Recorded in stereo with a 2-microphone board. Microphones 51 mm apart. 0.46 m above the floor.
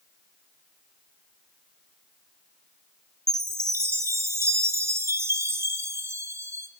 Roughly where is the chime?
Right.